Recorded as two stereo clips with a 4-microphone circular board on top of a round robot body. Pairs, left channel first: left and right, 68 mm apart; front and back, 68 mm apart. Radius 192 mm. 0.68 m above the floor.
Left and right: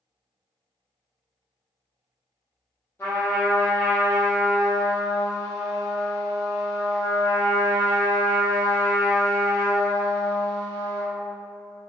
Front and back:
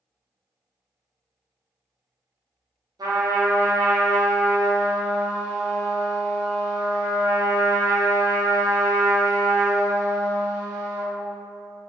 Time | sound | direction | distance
3.0 | a trumpet | 155° left | 0.8 m